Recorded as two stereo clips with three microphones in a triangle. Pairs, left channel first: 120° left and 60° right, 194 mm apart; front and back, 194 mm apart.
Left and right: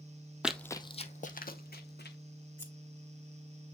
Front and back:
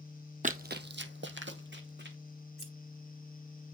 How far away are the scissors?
About 2.5 m.